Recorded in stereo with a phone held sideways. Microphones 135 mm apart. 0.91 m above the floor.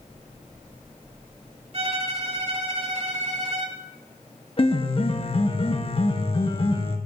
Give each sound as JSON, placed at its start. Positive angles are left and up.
{"t": 1.7, "sound": "a violin", "side_deg": -50, "distance_m": 2.0}
{"t": 4.6, "sound": "a piano", "side_deg": 40, "distance_m": 1.3}